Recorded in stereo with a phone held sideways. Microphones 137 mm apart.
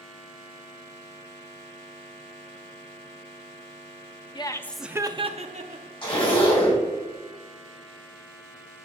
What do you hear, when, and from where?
4.3 s laughter: 35° left (ahead or behind), 0.6 m; by 5.9 s 70° right (ahead or behind), 1.0 m
6.0 s a zipper: 40° left (ahead or behind), 3 m